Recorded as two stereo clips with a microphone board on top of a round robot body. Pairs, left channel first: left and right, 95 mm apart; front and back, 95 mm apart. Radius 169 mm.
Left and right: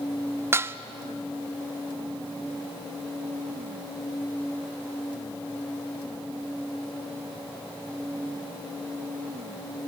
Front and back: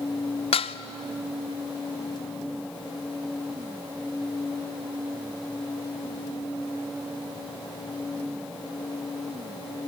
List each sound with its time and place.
0.5 s dishes clattering: 25° right, 0.6 m